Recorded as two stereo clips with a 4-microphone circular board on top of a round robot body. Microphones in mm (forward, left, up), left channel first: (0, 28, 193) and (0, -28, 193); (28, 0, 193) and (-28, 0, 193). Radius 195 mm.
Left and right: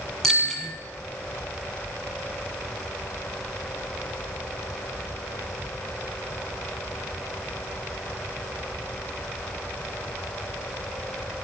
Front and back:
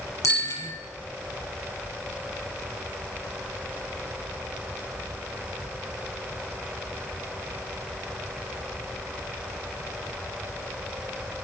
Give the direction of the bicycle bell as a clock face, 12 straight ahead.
12 o'clock.